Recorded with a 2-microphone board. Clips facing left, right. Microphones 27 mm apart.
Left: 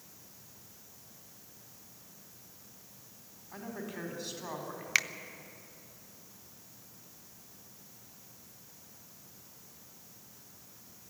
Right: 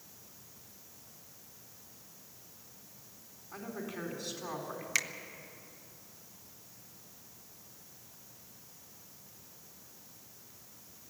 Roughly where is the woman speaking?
Centre.